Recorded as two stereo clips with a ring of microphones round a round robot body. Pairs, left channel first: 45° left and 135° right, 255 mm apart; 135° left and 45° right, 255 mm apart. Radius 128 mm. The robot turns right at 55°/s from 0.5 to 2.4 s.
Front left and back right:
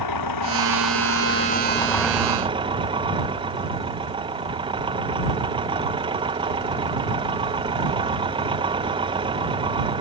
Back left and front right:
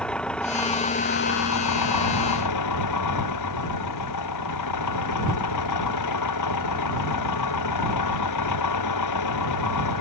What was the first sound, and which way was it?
An engine running, 50° left.